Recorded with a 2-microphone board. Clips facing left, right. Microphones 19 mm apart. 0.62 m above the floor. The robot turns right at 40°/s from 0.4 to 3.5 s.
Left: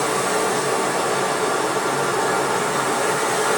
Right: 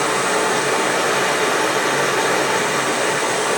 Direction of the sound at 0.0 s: 135° right.